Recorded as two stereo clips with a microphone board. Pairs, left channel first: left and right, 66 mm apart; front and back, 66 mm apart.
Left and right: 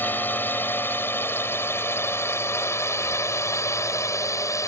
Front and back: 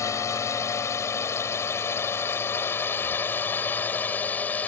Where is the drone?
30° left; by 4.7 s 60° left.